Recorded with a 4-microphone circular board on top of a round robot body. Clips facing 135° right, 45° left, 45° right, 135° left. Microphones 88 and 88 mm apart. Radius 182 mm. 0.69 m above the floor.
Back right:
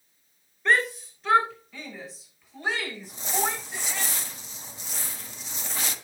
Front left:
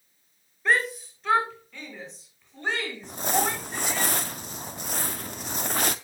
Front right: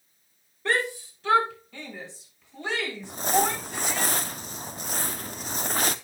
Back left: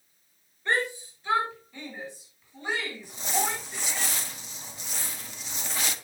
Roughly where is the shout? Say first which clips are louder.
Back right 1 dB, front right 1 dB; ahead right.